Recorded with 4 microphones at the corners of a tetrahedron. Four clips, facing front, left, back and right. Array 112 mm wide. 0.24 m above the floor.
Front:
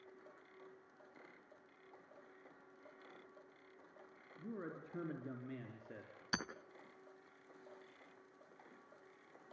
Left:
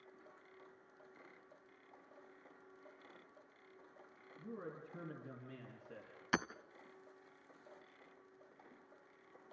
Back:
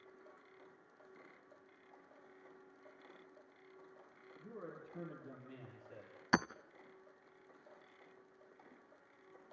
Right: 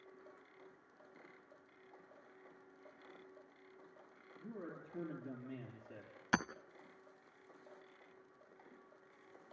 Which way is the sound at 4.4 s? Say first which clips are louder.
Even, front 3 dB; 10° left.